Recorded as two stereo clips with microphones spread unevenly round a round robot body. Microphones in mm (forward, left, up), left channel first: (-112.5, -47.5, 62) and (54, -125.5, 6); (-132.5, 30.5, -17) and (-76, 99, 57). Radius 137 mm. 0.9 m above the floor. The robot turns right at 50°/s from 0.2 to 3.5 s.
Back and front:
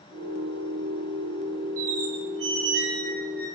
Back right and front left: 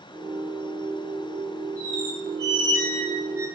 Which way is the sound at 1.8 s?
Straight ahead.